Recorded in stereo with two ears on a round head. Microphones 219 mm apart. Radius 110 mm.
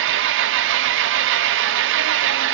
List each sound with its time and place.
0.0 s an engine running: 50° right (ahead or behind), 0.7 m